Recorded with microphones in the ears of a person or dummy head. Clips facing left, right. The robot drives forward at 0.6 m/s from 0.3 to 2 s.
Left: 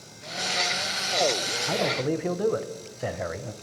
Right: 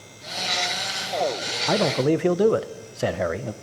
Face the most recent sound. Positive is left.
turn(degrees=-55)  # may be behind; listen again after turning